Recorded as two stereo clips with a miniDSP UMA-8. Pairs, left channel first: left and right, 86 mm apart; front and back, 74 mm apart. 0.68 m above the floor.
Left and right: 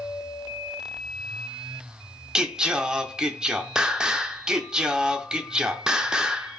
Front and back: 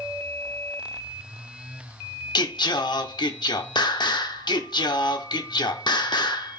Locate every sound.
2.4 s singing: 10° right, 0.5 m